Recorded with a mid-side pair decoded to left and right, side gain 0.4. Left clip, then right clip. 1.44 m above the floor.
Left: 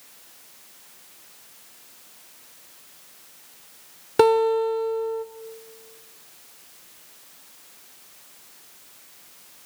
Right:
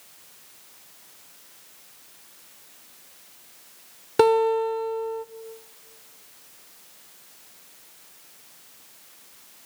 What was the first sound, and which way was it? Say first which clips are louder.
A guitar: left 1 dB; straight ahead.